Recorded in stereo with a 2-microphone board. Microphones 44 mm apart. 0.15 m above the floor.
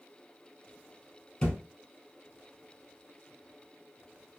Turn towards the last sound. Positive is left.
turn(degrees=25)  # may be behind; listen again after turning